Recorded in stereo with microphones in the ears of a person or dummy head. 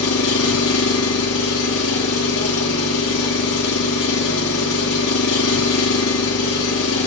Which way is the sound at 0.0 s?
70° left (ahead or behind).